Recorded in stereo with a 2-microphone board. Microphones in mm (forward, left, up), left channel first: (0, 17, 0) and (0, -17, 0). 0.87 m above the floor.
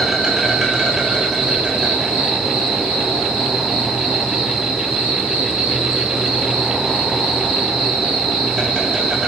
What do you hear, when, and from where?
0.0 s an insect: 15° right (ahead or behind), 3 m